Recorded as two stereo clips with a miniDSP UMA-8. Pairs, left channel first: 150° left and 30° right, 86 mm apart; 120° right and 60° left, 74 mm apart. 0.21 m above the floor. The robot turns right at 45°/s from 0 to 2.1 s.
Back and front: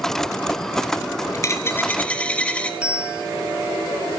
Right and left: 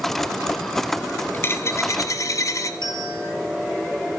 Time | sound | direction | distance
1.3 | a dropped coin | 170° right | 0.9 m
2.8 | a bell | 110° right | 1.7 m